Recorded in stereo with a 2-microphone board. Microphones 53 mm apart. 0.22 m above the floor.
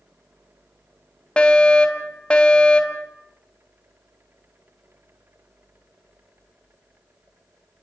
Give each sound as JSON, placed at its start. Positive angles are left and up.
{"t": 1.4, "sound": "a fire alarm", "side_deg": 20, "distance_m": 2.0}